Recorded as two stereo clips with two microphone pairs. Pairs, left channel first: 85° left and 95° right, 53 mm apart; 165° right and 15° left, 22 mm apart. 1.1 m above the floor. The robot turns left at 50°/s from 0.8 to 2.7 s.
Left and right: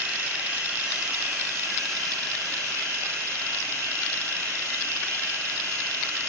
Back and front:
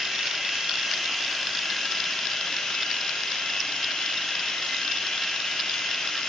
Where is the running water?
30° right, 3 m; by 6.3 s 125° right, 3 m.